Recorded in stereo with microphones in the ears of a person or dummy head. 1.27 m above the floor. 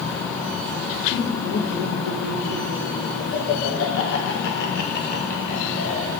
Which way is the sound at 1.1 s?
45° left (ahead or behind).